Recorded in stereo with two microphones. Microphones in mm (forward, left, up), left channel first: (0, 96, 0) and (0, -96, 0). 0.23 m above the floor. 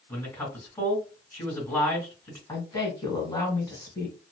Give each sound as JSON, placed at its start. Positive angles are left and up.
{"t": 0.1, "sound": "a man speaking", "side_deg": 10, "distance_m": 2.5}
{"t": 2.5, "sound": "a woman speaking", "side_deg": 20, "distance_m": 1.6}